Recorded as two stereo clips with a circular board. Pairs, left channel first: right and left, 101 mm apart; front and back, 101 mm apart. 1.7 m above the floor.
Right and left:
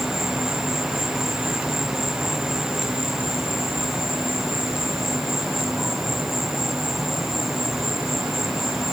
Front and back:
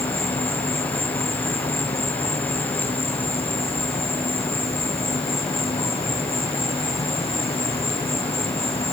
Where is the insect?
5° left.